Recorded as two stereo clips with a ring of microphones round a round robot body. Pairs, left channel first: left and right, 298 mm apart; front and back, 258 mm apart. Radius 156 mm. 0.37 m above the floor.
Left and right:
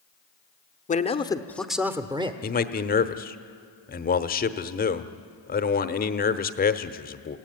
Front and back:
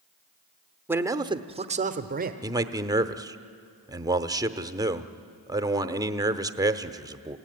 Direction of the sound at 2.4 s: 115° left.